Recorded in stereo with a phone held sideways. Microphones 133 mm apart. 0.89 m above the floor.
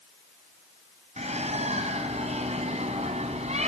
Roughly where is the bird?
Right.